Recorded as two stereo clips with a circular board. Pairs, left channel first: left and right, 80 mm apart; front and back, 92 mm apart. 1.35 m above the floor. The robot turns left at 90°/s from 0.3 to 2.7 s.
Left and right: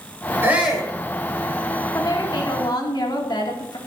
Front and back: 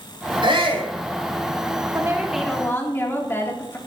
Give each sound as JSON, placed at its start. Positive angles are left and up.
{"t": 0.4, "sound": "a shout", "azimuth_deg": -150, "distance_m": 5.5}
{"t": 1.9, "sound": "a woman speaking", "azimuth_deg": 130, "distance_m": 2.5}